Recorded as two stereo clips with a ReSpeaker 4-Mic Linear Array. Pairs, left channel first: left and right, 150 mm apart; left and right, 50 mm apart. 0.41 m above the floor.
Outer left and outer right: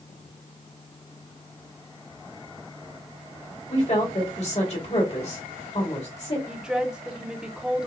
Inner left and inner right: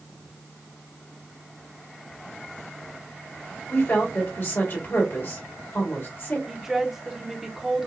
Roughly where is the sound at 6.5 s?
Centre.